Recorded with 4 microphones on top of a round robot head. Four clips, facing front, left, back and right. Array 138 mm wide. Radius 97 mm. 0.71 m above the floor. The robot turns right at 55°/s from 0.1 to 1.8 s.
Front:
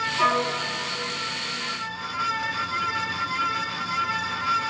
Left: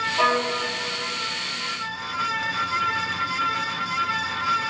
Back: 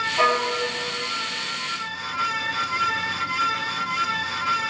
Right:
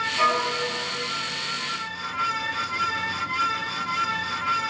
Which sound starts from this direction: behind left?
A violin, at 0.2 s.